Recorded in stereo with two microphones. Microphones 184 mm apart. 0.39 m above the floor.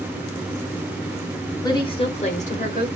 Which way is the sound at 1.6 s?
20° left (ahead or behind).